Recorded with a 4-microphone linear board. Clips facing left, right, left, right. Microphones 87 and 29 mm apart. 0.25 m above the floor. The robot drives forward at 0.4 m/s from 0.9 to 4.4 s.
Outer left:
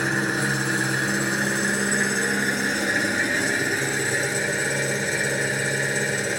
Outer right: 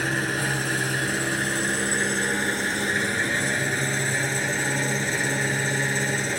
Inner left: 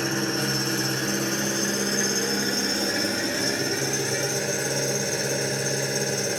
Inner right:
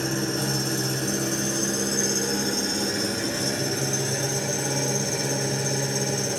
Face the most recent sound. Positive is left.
turn(degrees=15)  # may be behind; listen again after turning